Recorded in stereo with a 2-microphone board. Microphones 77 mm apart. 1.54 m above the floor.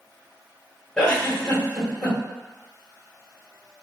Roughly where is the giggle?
Centre.